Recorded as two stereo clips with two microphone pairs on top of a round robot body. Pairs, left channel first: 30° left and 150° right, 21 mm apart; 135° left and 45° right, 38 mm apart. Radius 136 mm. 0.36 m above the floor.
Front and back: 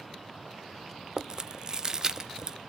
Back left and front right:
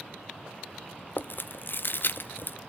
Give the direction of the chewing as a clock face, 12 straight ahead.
7 o'clock.